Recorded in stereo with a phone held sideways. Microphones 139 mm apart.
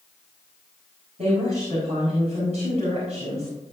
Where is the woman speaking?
55° right (ahead or behind), 5 m.